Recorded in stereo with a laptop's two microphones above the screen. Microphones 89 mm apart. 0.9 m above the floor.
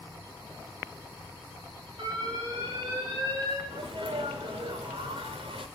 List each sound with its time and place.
2.0 s an alarm: 65° right (ahead or behind), 8.5 m
3.7 s a sneeze: 80° right, 2.5 m